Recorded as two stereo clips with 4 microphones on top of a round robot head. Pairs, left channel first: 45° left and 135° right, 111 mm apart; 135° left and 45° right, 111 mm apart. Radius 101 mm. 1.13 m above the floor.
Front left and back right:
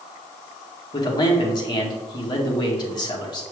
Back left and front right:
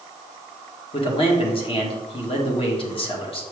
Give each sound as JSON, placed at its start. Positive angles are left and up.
{"t": 0.9, "sound": "a man speaking", "azimuth_deg": 100, "distance_m": 1.7}